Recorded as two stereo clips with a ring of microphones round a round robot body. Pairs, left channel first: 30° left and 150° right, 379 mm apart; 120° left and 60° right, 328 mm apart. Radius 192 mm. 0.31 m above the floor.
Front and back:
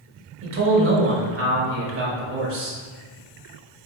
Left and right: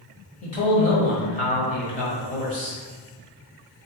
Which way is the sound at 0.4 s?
175° left.